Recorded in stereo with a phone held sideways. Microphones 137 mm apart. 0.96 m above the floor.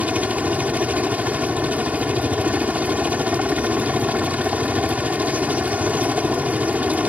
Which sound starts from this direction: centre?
A helicopter, at 0.0 s.